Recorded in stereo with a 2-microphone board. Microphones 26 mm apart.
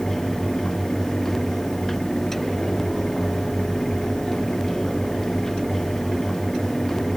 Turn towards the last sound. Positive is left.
No sound to turn to.